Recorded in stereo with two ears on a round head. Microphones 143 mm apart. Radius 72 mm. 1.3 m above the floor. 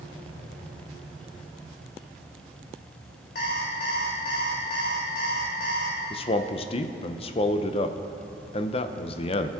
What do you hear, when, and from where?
3.4 s an alarm clock: 55° left (ahead or behind), 2 m
6.1 s a man speaking: 35° left (ahead or behind), 0.6 m